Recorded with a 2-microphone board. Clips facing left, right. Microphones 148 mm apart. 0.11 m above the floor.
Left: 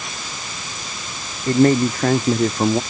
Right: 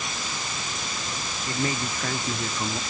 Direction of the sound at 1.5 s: 55° left (ahead or behind).